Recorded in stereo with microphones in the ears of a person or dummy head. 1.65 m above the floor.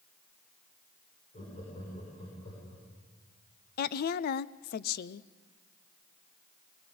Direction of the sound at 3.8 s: 50° left (ahead or behind).